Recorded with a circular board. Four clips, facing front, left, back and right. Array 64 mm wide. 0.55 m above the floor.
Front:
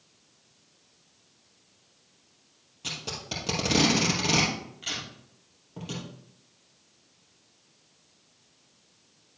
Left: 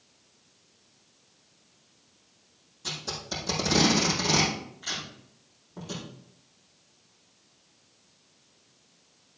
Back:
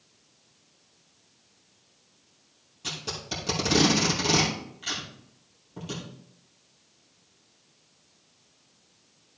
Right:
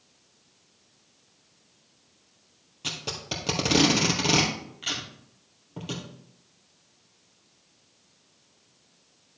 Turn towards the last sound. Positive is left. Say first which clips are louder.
# right 1 dB, back 1 dB
turn(degrees=-75)